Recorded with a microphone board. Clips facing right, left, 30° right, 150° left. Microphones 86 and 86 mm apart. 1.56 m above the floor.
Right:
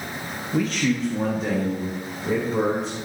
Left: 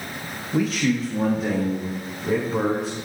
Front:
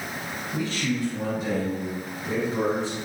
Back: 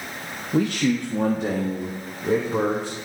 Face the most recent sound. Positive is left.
turn(degrees=180)